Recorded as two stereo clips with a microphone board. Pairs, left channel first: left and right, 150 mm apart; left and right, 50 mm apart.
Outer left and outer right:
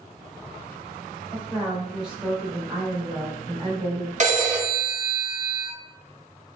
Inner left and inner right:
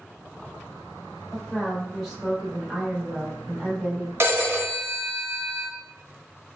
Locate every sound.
1.3 s a woman speaking: centre (ahead or behind), 1.2 m; by 4.1 s 25° right (ahead or behind), 1.0 m
4.2 s a phone ringing: 50° right (ahead or behind), 0.8 m